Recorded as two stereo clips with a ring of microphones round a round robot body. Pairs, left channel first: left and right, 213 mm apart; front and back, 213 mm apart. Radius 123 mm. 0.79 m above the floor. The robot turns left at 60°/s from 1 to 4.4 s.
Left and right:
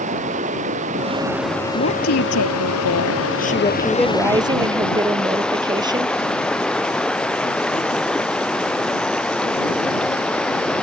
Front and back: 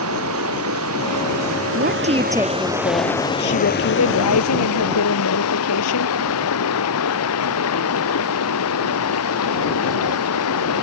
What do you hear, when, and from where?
0.0 s running water: 150° right; by 10.8 s 5° left
1.7 s a woman speaking: 140° left; by 6.2 s 20° right